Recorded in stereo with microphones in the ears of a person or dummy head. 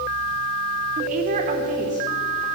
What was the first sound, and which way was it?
A woman speaking, 40° right (ahead or behind).